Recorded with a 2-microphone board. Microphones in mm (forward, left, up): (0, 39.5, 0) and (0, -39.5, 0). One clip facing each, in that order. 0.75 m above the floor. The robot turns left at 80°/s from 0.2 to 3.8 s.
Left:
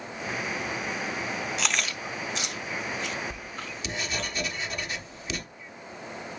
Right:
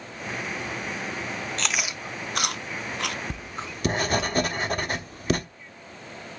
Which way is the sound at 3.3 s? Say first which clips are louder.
Right 2 dB; 90° right.